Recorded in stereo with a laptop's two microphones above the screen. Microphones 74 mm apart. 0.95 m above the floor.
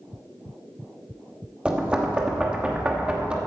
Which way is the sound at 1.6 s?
10° right (ahead or behind).